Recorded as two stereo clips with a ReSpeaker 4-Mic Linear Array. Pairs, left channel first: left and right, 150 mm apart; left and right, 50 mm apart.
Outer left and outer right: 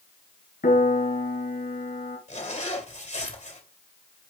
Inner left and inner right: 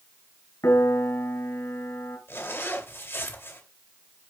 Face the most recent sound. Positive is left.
turn(degrees=55)  # may be behind; listen again after turning